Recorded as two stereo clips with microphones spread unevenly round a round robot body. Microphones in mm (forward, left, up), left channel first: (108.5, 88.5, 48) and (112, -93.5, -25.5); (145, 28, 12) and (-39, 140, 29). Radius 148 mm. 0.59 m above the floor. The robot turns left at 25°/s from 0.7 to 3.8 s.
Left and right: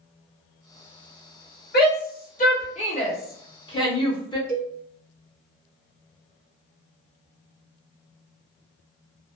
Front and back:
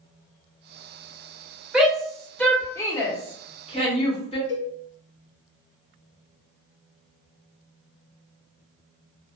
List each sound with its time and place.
1.7 s a shout: 60° left, 1.2 m; by 4.4 s 5° left, 1.2 m
4.5 s a cowbell: 30° right, 0.5 m